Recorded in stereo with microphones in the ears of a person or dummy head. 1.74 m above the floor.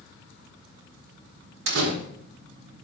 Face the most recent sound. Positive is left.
turn(degrees=-70)  # may be behind; listen again after turning